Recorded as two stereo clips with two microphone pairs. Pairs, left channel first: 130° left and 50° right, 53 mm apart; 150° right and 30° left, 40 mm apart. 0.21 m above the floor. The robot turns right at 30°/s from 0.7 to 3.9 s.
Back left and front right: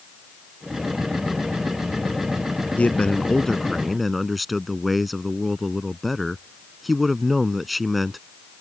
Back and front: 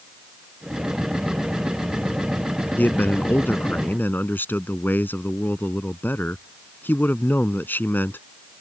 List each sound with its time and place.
2.8 s a man speaking: 170° right; by 8.2 s 135° right